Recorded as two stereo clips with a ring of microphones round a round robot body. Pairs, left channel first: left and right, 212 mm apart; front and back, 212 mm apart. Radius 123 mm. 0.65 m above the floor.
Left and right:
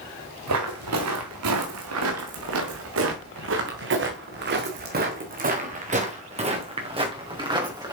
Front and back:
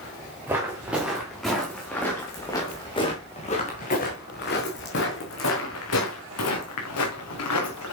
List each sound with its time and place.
0.5 s footsteps: 100° right, 3.5 m; by 7.9 s 20° right, 4 m